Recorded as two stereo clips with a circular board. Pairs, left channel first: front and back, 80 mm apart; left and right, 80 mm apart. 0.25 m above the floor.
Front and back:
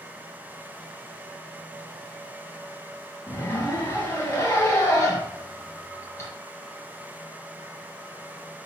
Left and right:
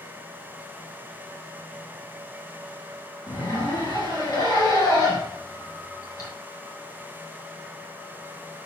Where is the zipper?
50° left, 1.7 m.